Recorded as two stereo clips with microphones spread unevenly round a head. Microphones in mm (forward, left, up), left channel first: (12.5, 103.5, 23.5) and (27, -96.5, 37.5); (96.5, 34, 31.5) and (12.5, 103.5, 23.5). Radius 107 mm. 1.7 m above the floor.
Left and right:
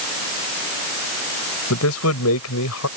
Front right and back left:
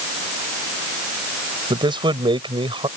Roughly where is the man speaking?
Left.